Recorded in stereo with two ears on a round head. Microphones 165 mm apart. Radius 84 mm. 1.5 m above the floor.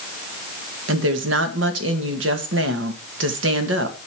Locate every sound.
0.9 s a woman speaking: 70° right (ahead or behind), 1.8 m